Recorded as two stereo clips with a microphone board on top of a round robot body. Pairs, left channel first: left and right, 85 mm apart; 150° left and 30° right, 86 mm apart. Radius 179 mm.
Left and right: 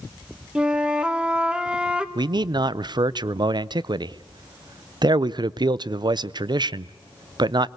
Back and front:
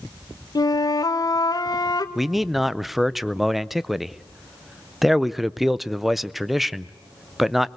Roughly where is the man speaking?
Behind right.